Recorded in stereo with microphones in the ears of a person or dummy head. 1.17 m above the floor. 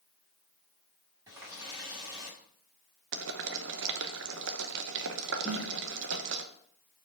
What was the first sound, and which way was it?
A running tap, 15° right (ahead or behind).